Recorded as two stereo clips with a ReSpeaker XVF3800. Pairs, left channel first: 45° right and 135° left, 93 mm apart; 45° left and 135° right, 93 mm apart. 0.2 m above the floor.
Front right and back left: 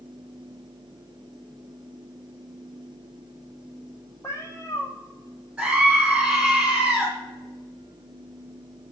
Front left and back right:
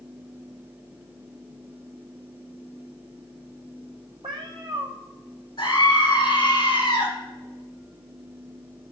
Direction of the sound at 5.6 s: 55° left.